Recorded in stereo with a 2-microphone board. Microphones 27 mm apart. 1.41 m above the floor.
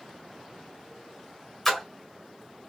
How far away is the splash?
About 1.9 m.